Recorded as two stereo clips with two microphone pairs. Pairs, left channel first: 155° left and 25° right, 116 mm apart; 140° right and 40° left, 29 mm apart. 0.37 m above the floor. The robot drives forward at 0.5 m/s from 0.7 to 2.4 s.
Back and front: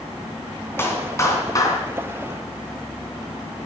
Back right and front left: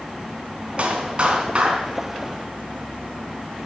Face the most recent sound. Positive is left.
turn(degrees=105)